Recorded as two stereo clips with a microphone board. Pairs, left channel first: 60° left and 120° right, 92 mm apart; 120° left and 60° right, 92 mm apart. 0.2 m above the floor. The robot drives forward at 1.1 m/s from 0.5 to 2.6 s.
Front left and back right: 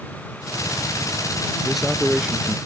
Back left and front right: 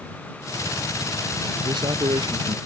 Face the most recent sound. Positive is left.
turn(degrees=-45)